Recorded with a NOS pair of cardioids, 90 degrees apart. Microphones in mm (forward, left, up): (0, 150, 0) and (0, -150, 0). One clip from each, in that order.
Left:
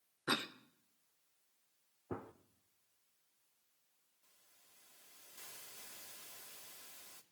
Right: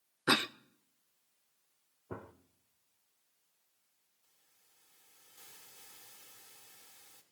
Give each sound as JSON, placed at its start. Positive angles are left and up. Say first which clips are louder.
{"t": 0.3, "sound": "a cough", "louder": "right 8 dB", "azimuth_deg": -30, "distance_m": 0.6}
{"t": 2.1, "sound": "a gunshot", "louder": "even", "azimuth_deg": 5, "distance_m": 1.0}
{"t": 4.2, "sound": "a hiss", "louder": "left 3 dB", "azimuth_deg": 45, "distance_m": 2.5}